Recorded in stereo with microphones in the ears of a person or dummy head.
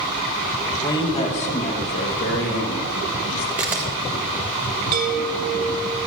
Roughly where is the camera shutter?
Centre.